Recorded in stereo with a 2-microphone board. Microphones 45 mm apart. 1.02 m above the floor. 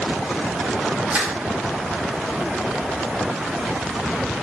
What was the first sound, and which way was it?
Crushing, 35° right (ahead or behind).